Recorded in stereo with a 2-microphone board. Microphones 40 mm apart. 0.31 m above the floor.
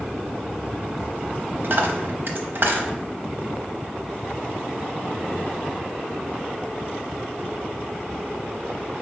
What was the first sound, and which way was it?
A dropped coin, 60° right (ahead or behind).